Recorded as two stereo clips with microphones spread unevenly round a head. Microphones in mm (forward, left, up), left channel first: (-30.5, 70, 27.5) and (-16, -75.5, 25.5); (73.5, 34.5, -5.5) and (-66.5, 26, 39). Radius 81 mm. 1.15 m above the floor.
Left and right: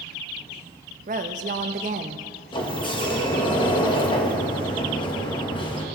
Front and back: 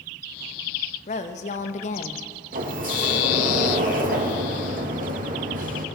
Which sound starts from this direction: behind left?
A sliding door, at 2.5 s.